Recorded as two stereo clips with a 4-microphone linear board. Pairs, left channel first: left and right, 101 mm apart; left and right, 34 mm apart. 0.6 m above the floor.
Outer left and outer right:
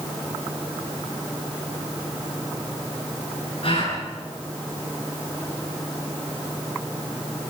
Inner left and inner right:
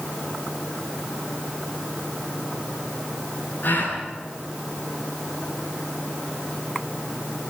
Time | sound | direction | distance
3.6 | a gasp | 55° left (ahead or behind) | 9.5 m